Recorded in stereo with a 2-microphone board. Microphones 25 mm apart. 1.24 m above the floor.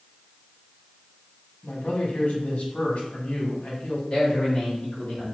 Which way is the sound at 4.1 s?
40° left (ahead or behind).